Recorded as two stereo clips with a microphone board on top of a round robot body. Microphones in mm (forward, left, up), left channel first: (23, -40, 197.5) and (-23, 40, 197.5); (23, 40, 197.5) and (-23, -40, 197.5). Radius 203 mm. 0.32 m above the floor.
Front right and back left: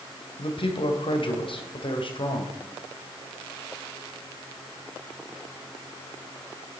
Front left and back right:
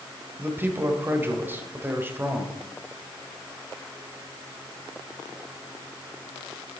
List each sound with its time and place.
0.4 s a man speaking: 55° right, 2.5 m